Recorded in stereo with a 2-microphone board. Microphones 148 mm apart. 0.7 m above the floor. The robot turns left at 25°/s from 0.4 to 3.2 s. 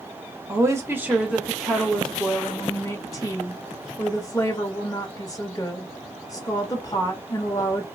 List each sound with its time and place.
0.5 s a woman speaking: 145° right, 0.9 m; by 7.8 s 145° left, 0.9 m